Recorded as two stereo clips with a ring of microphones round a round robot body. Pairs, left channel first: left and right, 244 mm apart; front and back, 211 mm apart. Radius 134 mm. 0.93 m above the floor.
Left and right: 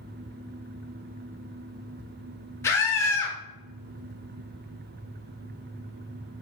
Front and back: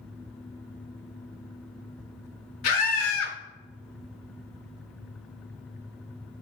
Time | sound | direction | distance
2.6 | a scream | 10° left | 2.5 m